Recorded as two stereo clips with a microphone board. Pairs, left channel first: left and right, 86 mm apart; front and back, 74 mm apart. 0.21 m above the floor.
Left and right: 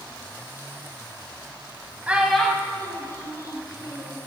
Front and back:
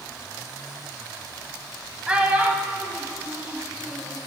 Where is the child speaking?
125° right, 0.5 m; by 4.2 s 115° left, 1.3 m.